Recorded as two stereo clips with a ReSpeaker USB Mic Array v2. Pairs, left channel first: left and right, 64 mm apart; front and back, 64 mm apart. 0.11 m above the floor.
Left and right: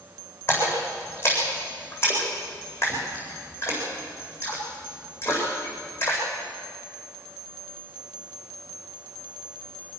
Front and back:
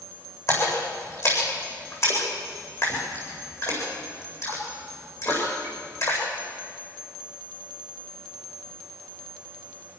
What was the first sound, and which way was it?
A splash, 35° left.